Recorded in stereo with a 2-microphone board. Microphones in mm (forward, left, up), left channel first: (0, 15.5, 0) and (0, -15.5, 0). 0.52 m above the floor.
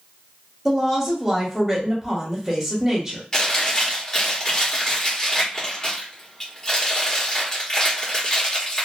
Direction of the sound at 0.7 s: 10° right (ahead or behind).